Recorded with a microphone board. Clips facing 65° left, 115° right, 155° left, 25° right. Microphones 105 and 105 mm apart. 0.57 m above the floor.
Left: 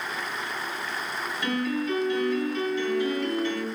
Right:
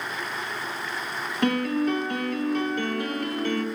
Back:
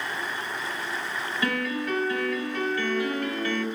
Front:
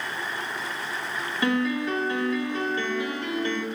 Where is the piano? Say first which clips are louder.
Right 5 dB, front 5 dB; 85° right, 1.9 m.